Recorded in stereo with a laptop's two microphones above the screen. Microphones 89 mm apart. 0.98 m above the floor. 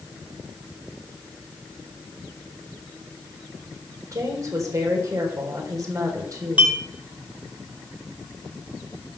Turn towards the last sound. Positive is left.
turn(degrees=-15)  # may be behind; listen again after turning